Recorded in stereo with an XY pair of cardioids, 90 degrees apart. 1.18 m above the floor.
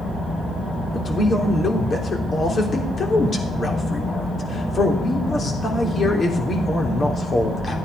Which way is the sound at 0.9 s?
40° left.